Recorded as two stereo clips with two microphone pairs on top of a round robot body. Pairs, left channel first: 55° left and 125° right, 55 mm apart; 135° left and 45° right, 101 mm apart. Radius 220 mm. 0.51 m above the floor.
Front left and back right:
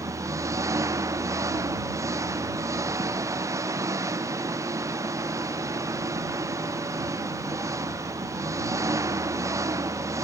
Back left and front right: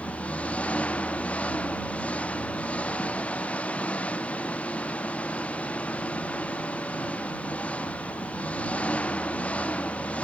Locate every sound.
0.0 s an engine running: 150° right